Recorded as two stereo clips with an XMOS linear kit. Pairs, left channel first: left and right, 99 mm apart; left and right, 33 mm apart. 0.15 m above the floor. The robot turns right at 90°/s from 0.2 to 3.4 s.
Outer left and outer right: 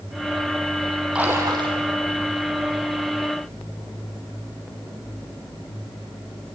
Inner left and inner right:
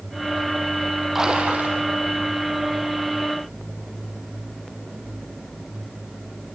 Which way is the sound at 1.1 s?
170° right.